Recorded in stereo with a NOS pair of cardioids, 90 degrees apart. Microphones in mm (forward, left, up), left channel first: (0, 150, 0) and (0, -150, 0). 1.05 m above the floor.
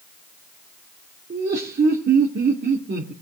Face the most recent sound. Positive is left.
turn(degrees=-35)